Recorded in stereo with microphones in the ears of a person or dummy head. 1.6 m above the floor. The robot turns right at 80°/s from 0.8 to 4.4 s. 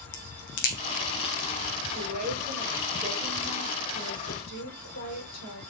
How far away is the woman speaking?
About 4 m.